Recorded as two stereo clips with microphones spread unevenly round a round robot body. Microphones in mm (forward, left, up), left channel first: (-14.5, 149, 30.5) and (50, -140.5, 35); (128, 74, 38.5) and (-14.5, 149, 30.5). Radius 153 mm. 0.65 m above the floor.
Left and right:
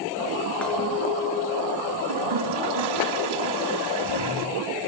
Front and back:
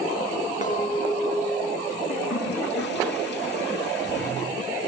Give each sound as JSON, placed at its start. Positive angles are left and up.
{"t": 0.6, "sound": "a clink", "azimuth_deg": 15, "distance_m": 5.5}
{"t": 2.1, "sound": "a toilet flushing", "azimuth_deg": -80, "distance_m": 4.5}